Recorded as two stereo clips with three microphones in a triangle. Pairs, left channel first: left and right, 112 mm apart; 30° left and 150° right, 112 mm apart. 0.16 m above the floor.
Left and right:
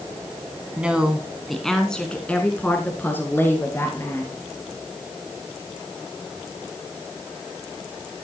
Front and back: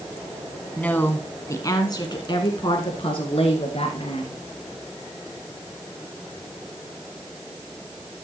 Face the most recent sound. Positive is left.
turn(degrees=25)